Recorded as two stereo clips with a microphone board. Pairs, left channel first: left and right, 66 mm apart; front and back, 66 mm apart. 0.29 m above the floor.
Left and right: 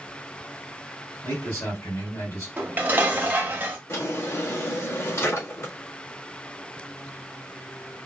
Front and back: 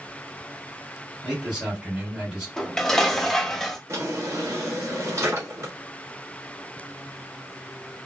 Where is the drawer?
135° left, 1.7 m.